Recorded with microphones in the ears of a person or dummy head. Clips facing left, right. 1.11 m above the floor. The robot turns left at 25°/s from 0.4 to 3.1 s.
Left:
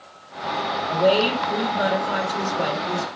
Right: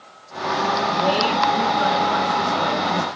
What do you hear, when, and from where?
0.9 s a woman speaking: 120° left, 2 m; by 3.1 s 65° left, 2 m